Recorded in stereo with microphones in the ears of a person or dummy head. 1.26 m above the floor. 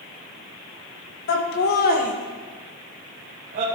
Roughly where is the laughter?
Left.